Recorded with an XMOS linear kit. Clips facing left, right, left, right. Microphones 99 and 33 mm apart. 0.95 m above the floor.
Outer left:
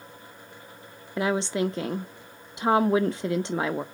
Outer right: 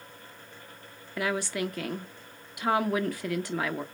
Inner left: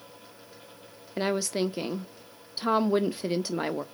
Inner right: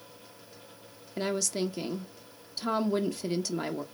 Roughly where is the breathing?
I don't hear breathing.